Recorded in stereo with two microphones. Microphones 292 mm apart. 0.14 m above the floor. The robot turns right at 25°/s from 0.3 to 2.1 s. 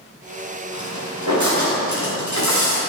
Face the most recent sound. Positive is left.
turn(degrees=-85)